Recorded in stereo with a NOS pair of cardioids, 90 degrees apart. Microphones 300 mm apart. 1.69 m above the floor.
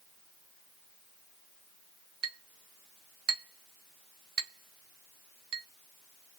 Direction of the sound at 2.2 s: 55° right.